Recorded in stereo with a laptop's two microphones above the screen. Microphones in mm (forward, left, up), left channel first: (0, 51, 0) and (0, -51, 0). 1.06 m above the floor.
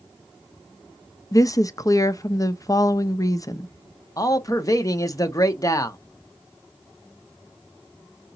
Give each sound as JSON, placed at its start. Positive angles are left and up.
{"t": 1.3, "sound": "a woman speaking", "side_deg": 35, "distance_m": 0.7}
{"t": 4.2, "sound": "a man speaking", "side_deg": 35, "distance_m": 0.9}